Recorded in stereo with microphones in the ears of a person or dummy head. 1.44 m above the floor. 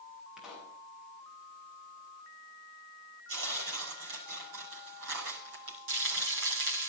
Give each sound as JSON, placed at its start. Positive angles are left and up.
{"t": 0.4, "sound": "a pop", "side_deg": 5, "distance_m": 8.5}
{"t": 3.3, "sound": "tearing paper", "side_deg": -55, "distance_m": 5.0}
{"t": 5.9, "sound": "frying", "side_deg": -55, "distance_m": 4.5}